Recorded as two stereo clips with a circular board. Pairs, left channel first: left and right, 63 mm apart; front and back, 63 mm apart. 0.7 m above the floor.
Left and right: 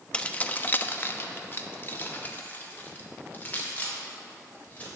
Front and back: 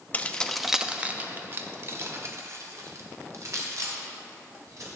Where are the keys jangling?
35° left, 0.6 m; by 4.9 s 155° left, 2.5 m.